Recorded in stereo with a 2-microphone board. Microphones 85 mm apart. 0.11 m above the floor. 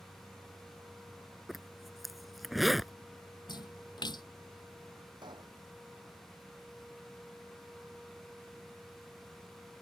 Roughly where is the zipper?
Centre.